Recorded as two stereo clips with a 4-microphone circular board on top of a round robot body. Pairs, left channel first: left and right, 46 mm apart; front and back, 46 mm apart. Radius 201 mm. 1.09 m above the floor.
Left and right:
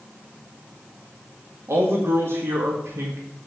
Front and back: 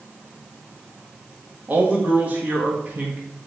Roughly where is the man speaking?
Behind right.